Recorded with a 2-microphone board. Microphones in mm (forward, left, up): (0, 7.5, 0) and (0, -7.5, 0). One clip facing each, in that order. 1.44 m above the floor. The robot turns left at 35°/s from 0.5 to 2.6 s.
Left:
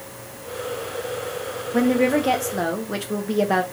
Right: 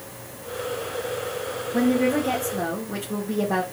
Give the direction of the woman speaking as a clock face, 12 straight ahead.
8 o'clock.